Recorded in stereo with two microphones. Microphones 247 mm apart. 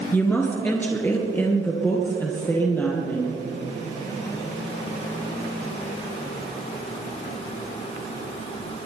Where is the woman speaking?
10° left (ahead or behind), 1.5 m.